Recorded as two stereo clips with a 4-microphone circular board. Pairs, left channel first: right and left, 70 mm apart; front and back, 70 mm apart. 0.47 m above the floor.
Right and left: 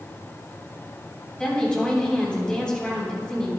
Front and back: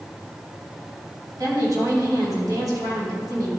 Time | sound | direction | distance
1.4 | a woman speaking | 165° right | 3 m